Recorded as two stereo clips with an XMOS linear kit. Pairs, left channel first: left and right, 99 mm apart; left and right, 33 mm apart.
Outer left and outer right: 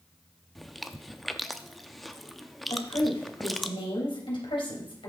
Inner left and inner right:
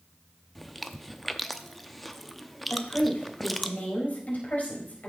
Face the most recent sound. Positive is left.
turn(degrees=60)  # may be behind; listen again after turning